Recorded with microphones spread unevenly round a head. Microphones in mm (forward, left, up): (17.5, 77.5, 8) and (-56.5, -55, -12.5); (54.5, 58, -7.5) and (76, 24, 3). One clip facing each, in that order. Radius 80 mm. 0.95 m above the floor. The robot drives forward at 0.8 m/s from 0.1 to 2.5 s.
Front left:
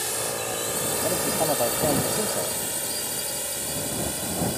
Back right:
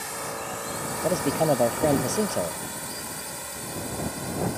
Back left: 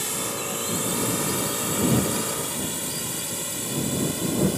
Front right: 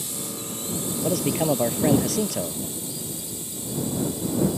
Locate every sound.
0.0 s a drone: 110° left
1.0 s a man speaking: 50° right; by 2.6 s 55° right